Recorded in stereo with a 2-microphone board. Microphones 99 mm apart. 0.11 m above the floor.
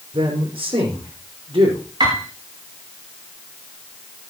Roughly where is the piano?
Right.